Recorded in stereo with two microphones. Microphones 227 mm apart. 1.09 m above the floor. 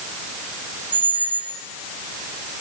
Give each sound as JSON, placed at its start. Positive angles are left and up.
{"t": 0.9, "sound": "a squeak", "side_deg": 20, "distance_m": 1.0}